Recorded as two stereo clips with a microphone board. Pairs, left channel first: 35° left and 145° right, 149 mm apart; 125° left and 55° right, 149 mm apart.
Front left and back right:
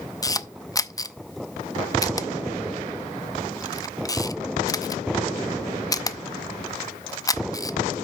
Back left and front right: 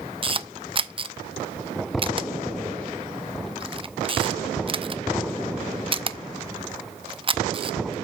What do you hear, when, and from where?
0.2 s a camera shutter: 25° right, 0.6 m